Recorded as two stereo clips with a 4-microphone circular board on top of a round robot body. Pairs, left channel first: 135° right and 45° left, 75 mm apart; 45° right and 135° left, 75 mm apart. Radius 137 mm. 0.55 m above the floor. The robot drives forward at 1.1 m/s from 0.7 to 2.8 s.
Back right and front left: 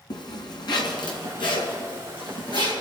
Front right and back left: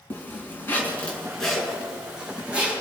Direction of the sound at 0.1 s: 110° right.